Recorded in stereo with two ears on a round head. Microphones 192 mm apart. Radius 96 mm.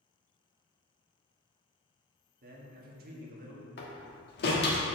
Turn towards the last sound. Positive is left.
turn(degrees=50)  # may be behind; listen again after turning